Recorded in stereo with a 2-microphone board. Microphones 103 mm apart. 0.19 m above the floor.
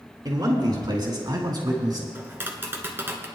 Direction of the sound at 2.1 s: 20° right (ahead or behind).